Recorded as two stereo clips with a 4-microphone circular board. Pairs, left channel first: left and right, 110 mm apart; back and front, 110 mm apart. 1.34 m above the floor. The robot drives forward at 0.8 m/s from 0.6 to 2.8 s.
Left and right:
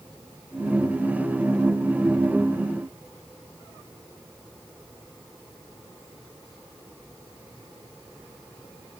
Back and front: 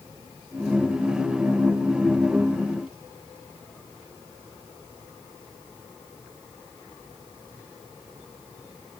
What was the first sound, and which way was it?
Only background noise.